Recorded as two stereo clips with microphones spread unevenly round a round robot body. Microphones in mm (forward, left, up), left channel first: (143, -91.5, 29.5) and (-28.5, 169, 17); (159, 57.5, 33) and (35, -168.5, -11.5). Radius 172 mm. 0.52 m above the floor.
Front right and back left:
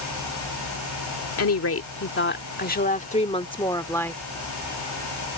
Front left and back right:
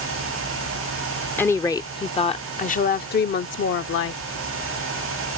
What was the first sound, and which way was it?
A woman speaking, 30° right.